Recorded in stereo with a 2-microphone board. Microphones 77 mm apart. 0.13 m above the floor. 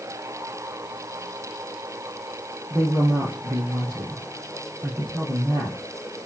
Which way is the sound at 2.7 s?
35° right (ahead or behind).